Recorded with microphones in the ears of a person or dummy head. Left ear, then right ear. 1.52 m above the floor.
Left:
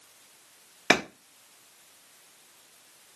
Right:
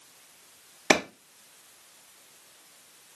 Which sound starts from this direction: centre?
A clap, at 0.9 s.